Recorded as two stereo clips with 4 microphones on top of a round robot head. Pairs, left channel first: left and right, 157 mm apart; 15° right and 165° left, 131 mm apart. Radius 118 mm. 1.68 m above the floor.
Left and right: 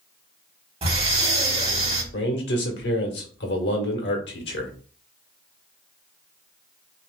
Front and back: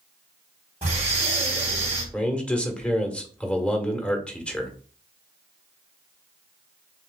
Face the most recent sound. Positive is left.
turn(degrees=65)